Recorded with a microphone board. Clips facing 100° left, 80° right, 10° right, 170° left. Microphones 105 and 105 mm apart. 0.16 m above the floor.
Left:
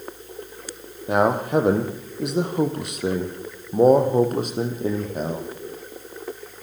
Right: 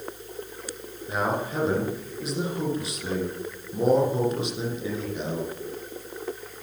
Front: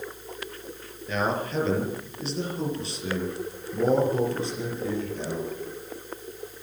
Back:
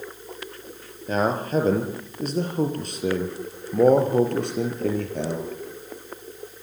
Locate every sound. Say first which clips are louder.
1.1 s a man speaking: left 8 dB, back 4 dB; 120° left, 4.5 m; by 5.5 s 150° left, 5 m